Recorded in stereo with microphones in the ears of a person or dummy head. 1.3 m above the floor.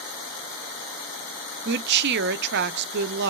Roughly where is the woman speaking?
Right.